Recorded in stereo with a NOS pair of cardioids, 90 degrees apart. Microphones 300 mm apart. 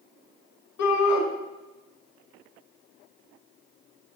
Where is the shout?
60° left, 2.5 m.